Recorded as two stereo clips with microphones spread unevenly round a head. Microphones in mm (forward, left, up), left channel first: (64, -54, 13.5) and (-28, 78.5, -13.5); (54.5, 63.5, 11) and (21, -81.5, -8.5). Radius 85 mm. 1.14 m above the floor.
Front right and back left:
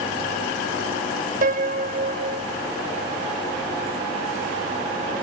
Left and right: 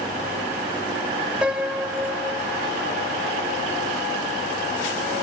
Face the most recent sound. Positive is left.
turn(degrees=170)